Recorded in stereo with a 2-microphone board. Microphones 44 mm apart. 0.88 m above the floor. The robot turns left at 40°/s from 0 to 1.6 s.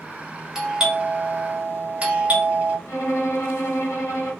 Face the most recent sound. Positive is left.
turn(degrees=80)